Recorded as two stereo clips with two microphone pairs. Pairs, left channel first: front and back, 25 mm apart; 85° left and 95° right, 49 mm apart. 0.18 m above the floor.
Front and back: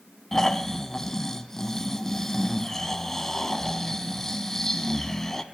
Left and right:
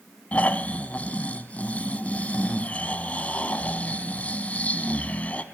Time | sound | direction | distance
0.3 | snoring | 75° left | 1.0 m